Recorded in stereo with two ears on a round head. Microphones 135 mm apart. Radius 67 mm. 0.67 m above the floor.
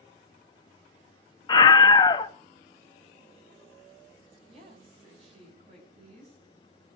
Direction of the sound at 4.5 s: 45° right (ahead or behind).